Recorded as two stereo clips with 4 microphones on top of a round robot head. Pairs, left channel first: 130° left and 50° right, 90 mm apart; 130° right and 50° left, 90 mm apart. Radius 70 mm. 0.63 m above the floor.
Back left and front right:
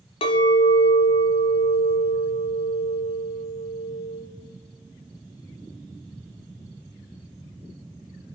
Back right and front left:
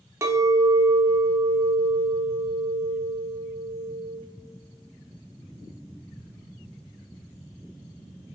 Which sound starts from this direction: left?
A clink, at 0.2 s.